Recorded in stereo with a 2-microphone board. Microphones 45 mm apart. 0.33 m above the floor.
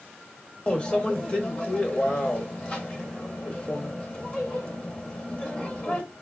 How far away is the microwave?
About 0.7 m.